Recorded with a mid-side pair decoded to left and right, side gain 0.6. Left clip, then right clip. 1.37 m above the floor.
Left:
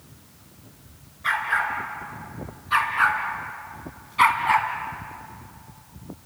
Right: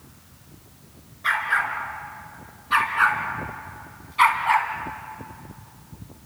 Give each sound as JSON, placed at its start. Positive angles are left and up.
{"t": 1.2, "sound": "a dog barking", "azimuth_deg": -10, "distance_m": 4.5}